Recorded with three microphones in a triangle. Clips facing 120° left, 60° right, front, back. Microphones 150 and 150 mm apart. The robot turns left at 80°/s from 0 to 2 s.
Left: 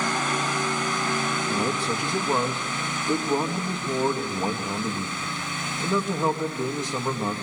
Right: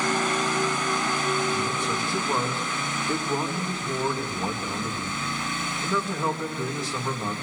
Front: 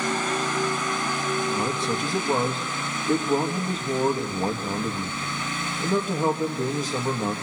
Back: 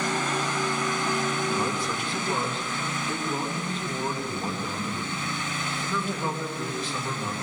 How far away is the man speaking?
About 2.5 m.